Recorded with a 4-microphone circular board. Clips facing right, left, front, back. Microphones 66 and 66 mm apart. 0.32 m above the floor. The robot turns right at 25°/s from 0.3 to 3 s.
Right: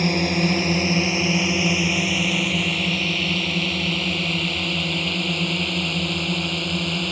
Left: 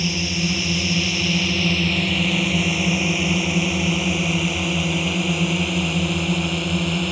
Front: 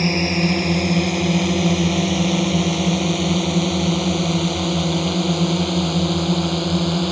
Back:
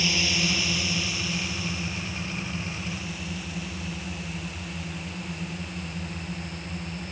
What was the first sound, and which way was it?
A drone, 50° right.